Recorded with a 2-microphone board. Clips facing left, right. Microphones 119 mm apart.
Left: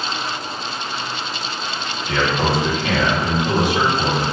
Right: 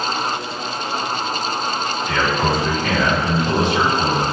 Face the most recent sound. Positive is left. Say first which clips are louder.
# left 1 dB
turn(degrees=15)  # may be behind; listen again after turning